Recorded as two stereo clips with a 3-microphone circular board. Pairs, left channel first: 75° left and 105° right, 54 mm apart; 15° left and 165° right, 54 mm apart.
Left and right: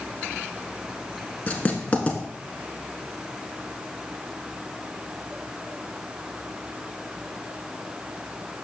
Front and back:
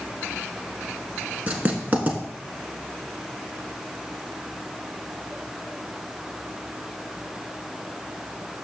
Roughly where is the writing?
Behind left.